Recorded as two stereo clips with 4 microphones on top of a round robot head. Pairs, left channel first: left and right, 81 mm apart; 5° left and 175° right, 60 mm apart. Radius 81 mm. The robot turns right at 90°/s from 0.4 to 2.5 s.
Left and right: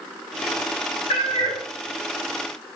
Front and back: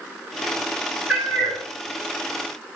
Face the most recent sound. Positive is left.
turn(degrees=-120)